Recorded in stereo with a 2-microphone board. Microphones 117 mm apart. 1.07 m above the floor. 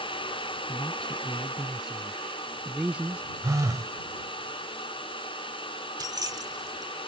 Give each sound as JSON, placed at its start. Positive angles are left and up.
{"t": 0.7, "sound": "a man speaking", "side_deg": 5}
{"t": 3.4, "sound": "a phone buzzing", "side_deg": -30}
{"t": 6.0, "sound": "keys jangling", "side_deg": -35}